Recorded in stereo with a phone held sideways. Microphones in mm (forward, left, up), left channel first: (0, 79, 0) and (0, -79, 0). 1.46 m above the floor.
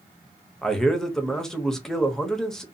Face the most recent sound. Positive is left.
turn(degrees=5)  # may be behind; listen again after turning